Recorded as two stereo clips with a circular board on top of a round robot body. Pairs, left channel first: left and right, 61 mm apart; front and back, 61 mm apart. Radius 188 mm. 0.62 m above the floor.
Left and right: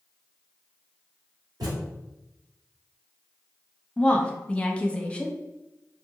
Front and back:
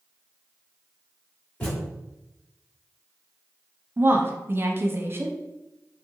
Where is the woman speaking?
150° left, 0.8 m.